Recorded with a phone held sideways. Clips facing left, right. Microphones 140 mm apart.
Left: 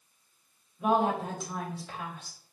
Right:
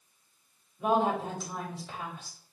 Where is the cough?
I don't hear a cough.